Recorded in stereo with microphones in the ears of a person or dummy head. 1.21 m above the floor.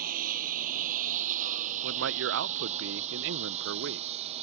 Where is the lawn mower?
50° right (ahead or behind); by 4.5 s 35° right (ahead or behind).